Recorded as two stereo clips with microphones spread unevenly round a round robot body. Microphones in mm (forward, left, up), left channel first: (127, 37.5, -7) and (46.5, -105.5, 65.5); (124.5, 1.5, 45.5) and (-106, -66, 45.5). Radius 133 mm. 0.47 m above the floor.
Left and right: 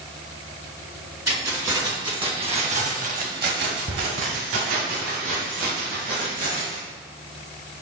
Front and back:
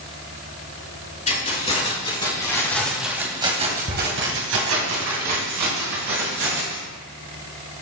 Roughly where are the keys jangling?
Ahead right.